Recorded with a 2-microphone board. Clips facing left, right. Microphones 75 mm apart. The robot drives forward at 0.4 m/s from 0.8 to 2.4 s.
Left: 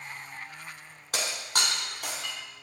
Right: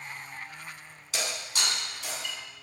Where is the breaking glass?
50° left (ahead or behind), 2.5 m; by 2.4 s 60° left (ahead or behind), 2 m.